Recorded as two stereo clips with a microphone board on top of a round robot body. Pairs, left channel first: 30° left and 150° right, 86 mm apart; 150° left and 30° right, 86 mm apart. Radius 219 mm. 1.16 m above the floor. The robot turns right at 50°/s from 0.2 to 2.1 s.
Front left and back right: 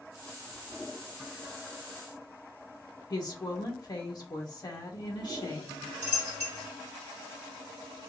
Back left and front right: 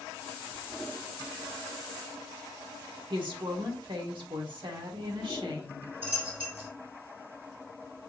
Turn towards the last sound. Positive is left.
turn(degrees=-35)